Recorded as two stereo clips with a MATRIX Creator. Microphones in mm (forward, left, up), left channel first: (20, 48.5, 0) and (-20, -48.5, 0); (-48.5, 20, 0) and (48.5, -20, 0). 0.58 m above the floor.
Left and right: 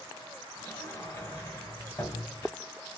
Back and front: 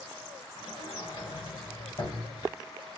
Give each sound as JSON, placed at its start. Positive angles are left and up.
{"t": 0.6, "sound": "a sliding door", "azimuth_deg": 130, "distance_m": 1.2}